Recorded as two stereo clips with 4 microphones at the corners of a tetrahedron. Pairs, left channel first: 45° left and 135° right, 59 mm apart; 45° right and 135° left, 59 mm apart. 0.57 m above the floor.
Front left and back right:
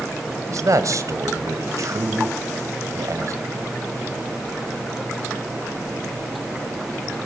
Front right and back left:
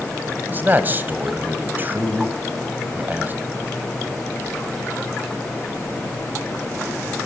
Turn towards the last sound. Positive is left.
turn(degrees=-165)